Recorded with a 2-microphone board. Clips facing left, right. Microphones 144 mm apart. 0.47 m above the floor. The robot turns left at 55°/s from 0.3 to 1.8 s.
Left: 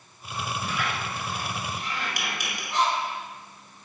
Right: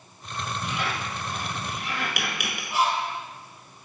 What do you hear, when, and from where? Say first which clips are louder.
0.6 s a squeak: right 2 dB; 15° right (ahead or behind), 1.3 m; by 2.6 s 80° right, 1.3 m
2.7 s a bird: even; 10° right (ahead or behind), 0.7 m